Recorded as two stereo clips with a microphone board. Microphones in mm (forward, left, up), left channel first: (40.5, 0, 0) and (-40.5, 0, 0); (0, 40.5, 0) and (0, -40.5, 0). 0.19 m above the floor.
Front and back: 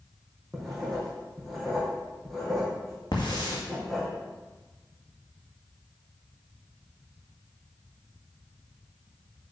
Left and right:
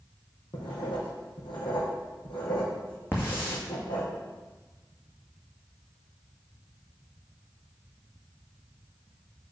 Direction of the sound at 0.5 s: 85° left.